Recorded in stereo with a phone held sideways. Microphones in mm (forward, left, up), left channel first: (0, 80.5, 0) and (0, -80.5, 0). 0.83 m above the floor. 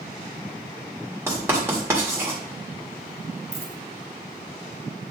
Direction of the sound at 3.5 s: 40° right (ahead or behind).